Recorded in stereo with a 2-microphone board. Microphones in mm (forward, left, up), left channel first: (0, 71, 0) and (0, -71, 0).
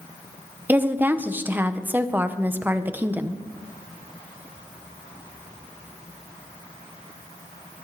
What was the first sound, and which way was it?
A woman speaking, 15° right (ahead or behind).